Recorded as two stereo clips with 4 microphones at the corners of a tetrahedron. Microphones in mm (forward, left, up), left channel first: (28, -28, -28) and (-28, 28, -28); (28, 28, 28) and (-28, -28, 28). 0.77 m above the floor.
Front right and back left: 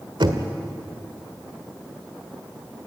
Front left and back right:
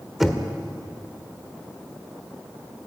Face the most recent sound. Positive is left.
turn(degrees=140)